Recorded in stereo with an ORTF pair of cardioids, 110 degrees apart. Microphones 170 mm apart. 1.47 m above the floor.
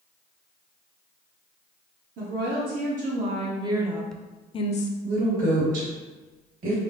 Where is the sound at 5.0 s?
55° right, 1.8 m.